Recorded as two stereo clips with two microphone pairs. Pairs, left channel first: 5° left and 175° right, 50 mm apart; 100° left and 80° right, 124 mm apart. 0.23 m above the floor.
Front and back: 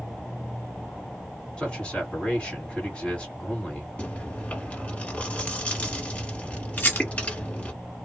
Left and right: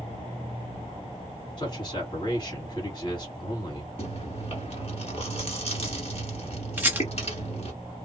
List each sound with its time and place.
1.6 s a man speaking: 70° left, 2.0 m
4.0 s chewing: 70° left, 1.2 m
6.8 s a rattle: 15° right, 0.9 m